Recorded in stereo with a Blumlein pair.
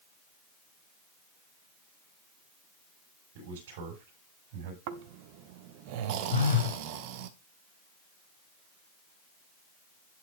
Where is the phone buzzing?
65° left, 4 m.